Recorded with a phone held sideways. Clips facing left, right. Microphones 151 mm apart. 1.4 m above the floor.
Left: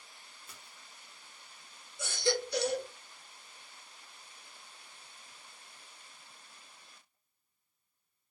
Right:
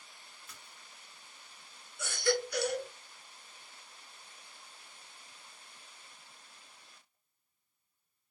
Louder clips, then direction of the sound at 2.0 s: Right 1 dB; 30° left (ahead or behind).